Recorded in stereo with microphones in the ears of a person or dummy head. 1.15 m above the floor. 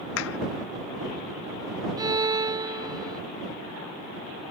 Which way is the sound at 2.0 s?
20° right (ahead or behind).